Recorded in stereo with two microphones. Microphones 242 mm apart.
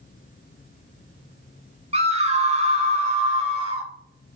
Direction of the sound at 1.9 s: 25° right (ahead or behind).